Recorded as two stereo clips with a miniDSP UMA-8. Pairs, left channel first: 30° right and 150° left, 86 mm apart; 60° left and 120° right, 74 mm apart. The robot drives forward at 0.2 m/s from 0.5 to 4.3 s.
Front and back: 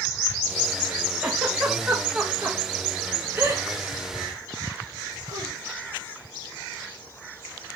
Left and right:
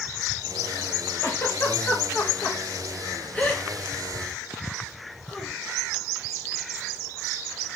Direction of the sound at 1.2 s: 70° left.